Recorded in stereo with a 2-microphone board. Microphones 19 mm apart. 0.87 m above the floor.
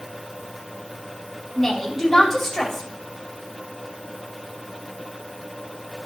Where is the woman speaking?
10° left (ahead or behind), 3.5 m.